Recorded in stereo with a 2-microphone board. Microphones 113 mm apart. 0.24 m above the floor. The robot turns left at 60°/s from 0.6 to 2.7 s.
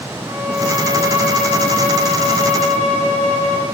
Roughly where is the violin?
Behind right.